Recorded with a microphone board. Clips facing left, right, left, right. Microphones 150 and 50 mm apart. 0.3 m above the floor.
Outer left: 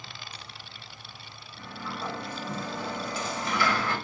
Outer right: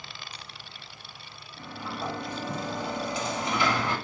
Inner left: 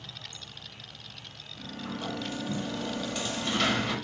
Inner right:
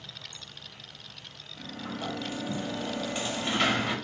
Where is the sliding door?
20° right (ahead or behind), 1.0 m.